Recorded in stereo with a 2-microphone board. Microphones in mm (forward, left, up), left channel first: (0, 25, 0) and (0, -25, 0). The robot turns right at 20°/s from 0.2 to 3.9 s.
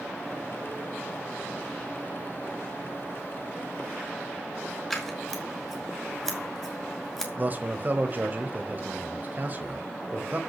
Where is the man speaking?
35° right (ahead or behind), 1.3 m.